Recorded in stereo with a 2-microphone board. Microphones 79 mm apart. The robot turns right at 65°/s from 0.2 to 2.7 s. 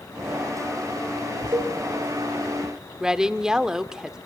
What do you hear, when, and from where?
1.5 s a cowbell: 90° right, 3.5 m; by 1.8 s 75° right (ahead or behind), 3.5 m
3.0 s a woman speaking: 10° right (ahead or behind), 0.9 m